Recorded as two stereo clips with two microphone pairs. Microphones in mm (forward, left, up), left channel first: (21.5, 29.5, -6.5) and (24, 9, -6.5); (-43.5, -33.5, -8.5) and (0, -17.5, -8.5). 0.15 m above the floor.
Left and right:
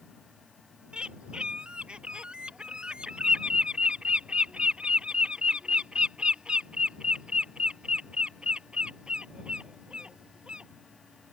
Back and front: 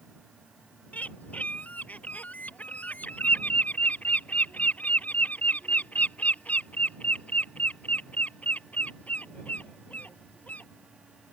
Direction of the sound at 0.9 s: 110° right.